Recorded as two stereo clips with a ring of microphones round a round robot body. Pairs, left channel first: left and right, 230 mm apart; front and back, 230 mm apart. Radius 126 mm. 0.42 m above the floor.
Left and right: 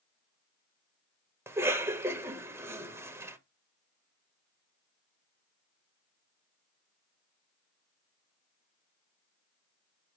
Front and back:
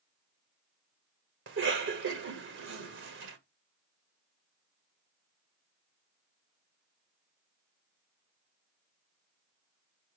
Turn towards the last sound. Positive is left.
turn(degrees=-165)